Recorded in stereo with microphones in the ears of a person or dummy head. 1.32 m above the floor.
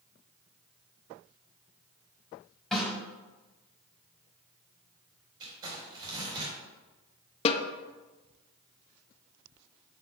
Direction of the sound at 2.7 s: 5° left (ahead or behind).